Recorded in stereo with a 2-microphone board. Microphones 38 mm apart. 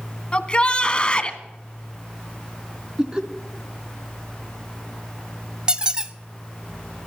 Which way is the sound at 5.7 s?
20° right (ahead or behind).